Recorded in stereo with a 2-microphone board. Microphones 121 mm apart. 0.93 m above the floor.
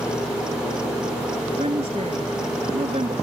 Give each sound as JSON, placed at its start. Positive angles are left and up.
{"t": 1.6, "sound": "a woman speaking", "side_deg": -55}